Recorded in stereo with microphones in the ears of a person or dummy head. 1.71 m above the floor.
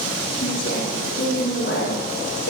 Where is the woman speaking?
45° left (ahead or behind), 5.5 m; by 2.5 s 55° left (ahead or behind), 7 m.